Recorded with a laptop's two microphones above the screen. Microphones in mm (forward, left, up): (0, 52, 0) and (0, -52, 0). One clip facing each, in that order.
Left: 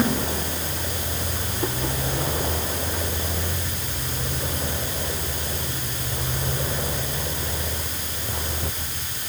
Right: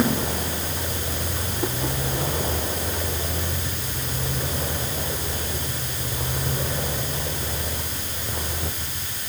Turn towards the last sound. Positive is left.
No sound to turn to.